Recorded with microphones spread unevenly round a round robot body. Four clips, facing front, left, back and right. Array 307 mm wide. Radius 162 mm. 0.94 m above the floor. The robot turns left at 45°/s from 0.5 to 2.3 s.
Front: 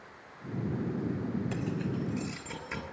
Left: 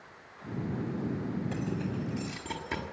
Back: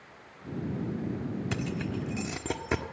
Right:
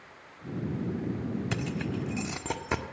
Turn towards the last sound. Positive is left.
turn(degrees=-165)